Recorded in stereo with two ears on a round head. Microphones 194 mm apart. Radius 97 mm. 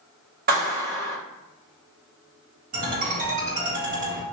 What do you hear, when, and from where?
0.5 s a clap: 45° right (ahead or behind), 1.9 m
2.7 s a ringtone: 40° right (ahead or behind), 1.8 m